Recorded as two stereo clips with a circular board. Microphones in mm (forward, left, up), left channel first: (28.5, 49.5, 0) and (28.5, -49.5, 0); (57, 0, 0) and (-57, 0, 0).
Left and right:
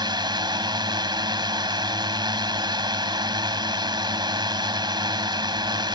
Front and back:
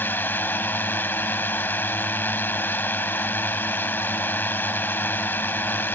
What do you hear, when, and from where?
0.0 s a drone: 65° right